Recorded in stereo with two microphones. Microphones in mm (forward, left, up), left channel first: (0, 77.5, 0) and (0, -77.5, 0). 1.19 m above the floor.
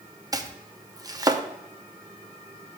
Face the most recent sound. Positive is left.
turn(degrees=-25)  # may be behind; listen again after turning